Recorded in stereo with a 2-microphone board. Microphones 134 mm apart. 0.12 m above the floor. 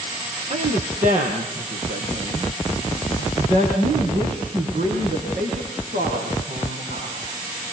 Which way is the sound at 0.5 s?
60° right (ahead or behind).